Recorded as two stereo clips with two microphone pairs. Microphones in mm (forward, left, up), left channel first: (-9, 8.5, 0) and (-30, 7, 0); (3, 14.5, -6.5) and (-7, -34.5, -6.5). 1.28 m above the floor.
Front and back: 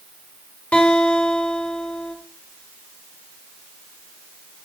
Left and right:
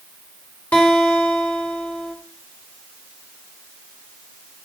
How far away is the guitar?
About 3 m.